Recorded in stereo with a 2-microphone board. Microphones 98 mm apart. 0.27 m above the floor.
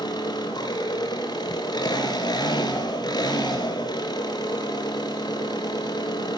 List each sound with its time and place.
0.0 s an engine running: 45° left (ahead or behind), 3.5 m